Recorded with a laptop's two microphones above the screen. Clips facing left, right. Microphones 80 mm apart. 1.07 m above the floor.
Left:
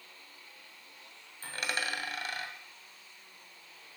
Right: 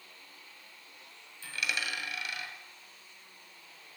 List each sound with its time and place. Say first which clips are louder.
1.4 s a dropped coin: left 1 dB; 40° left (ahead or behind), 2 m